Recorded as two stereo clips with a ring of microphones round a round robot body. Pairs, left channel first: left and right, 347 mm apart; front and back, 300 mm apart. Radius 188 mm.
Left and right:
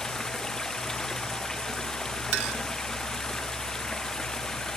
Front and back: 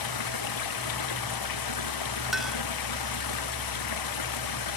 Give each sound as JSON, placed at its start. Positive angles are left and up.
{"t": 0.0, "sound": "running water", "azimuth_deg": 0}
{"t": 2.3, "sound": "a clink", "azimuth_deg": -90}